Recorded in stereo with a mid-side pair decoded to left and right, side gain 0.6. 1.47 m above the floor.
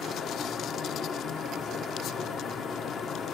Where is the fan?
40° left, 0.7 m.